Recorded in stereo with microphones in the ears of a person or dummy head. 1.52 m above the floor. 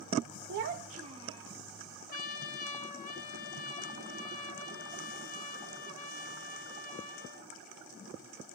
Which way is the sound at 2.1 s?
45° left (ahead or behind).